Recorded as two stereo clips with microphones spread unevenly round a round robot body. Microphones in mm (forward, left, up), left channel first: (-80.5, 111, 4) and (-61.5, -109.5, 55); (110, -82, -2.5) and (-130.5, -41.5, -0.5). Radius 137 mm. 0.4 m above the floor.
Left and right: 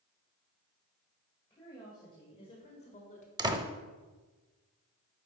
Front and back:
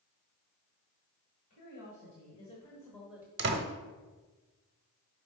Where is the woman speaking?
25° left, 1.9 m; by 3.3 s 95° left, 1.2 m.